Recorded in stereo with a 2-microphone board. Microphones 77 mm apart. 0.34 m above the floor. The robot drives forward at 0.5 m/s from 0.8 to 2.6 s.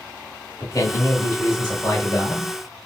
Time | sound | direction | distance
0.6 | a man speaking | 40° left (ahead or behind) | 1.0 m